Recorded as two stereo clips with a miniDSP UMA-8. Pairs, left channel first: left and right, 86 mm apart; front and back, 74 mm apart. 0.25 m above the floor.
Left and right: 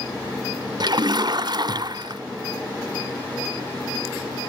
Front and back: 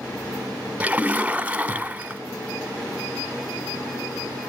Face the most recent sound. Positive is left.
turn(degrees=-110)